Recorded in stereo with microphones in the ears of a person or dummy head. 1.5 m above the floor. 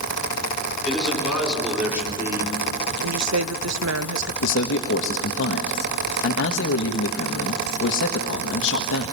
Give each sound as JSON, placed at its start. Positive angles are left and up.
{"t": 0.8, "sound": "a man speaking", "side_deg": 0, "distance_m": 5.0}
{"t": 3.0, "sound": "a woman speaking", "side_deg": -80, "distance_m": 0.6}
{"t": 4.4, "sound": "a man speaking", "side_deg": 70, "distance_m": 1.5}